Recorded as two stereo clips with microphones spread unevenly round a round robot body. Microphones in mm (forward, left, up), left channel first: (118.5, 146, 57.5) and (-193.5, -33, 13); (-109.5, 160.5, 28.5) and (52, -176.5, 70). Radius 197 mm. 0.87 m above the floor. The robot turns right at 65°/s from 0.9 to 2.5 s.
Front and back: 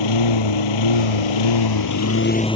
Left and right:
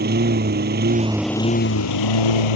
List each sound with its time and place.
0.0 s a lawn mower: straight ahead; by 2.6 s 105° left